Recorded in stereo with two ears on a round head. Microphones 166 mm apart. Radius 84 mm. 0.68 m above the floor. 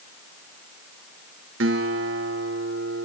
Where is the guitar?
75° right (ahead or behind), 3 m.